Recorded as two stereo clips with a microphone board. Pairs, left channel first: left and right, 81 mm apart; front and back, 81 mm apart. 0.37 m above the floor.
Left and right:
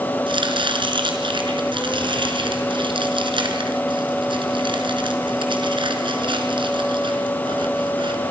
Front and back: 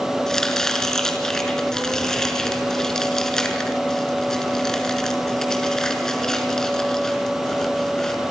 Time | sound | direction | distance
0.3 | chopping | 85° right | 4.5 m